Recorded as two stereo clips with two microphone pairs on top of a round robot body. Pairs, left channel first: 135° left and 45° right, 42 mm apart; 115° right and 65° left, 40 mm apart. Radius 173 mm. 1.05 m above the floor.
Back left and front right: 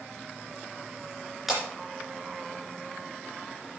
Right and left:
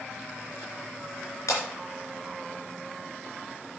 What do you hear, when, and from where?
1.5 s breaking glass: 125° right, 3 m